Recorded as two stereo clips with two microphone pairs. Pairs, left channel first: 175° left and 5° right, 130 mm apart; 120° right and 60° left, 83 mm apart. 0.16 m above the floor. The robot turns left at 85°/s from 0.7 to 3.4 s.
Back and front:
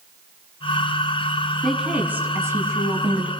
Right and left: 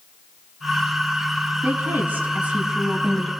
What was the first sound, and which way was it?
A woman speaking, 80° left.